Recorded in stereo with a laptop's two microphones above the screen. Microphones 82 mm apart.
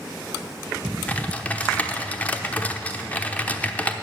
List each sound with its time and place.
1.1 s typing on a keyboard: 20° left (ahead or behind), 0.8 m